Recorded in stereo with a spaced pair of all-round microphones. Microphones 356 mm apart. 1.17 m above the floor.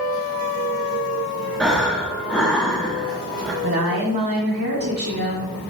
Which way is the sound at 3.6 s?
75° right (ahead or behind).